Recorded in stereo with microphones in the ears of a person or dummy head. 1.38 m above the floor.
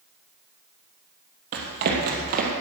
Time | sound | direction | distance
1.5 | running footsteps | 60° right (ahead or behind) | 2.5 m